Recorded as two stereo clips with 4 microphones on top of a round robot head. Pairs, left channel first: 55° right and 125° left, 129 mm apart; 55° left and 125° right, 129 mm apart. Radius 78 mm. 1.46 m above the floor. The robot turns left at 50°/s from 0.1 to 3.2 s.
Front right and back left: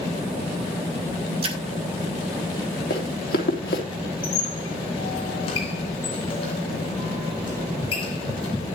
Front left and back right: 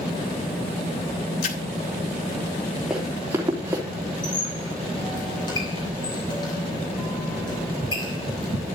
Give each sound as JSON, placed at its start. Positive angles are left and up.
{"t": 1.4, "sound": "a splash", "azimuth_deg": 80, "distance_m": 2.5}
{"t": 2.9, "sound": "running footsteps", "azimuth_deg": -40, "distance_m": 3.0}
{"t": 4.2, "sound": "a squeak", "azimuth_deg": -5, "distance_m": 6.5}